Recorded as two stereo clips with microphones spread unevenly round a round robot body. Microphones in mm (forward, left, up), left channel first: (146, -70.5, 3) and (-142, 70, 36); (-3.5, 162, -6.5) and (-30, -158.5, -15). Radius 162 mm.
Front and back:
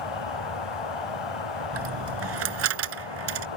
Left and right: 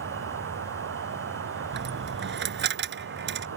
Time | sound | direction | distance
0.0 | an insect | 40° right | ?
1.7 | a dropped coin | 155° right | ?